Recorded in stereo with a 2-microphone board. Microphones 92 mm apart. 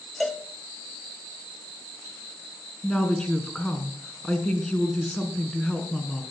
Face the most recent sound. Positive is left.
turn(degrees=10)  # may be behind; listen again after turning